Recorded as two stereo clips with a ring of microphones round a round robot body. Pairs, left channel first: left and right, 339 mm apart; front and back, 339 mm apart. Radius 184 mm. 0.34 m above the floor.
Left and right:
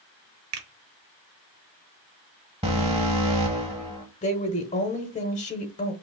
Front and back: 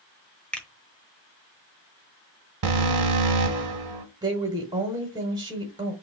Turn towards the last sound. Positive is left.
turn(degrees=120)